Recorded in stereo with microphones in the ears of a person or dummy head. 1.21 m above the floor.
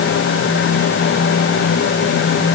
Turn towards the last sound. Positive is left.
No sound to turn to.